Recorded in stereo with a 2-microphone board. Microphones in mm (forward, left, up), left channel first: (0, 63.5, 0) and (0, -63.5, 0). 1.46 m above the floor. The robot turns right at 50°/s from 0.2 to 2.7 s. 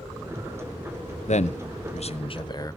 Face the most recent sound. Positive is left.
turn(degrees=30)  # may be behind; listen again after turning